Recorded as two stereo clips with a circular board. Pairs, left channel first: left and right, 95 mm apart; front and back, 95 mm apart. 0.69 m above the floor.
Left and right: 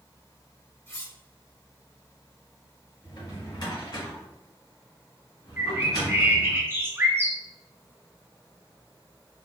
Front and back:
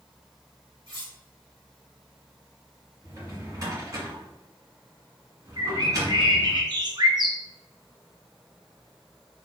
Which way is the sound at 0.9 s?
150° left.